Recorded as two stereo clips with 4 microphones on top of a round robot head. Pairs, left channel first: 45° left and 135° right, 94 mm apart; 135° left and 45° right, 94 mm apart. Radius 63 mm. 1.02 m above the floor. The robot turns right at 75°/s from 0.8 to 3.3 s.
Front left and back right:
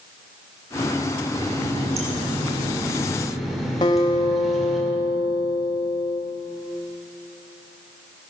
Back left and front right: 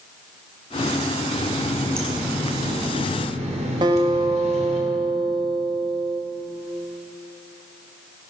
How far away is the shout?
No shout in this recording.